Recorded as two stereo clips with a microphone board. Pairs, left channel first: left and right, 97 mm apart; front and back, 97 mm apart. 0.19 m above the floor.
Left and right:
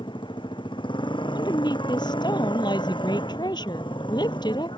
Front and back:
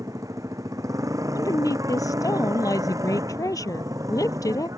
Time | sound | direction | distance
0.0 | a motorcycle | 125° left | ?
1.4 | a woman speaking | 50° left | ?